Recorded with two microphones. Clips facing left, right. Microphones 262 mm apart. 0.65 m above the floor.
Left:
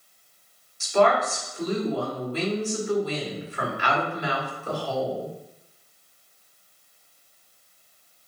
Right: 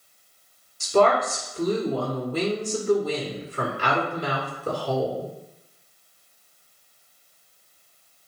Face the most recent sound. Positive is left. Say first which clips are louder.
# right 2 dB
turn(degrees=-45)  # may be behind; listen again after turning